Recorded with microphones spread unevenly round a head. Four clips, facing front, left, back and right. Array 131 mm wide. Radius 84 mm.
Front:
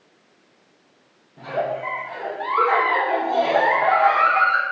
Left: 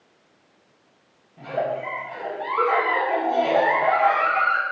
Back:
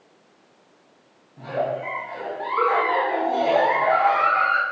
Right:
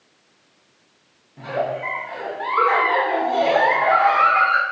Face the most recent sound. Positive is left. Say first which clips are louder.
# right 2 dB, front 1 dB
turn(degrees=-50)